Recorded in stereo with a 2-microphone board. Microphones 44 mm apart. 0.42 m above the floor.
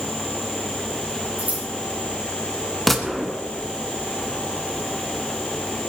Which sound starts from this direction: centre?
A gunshot, at 2.9 s.